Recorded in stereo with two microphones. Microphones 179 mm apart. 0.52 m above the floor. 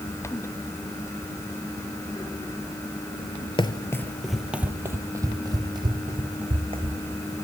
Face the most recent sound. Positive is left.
turn(degrees=-30)  # may be behind; listen again after turning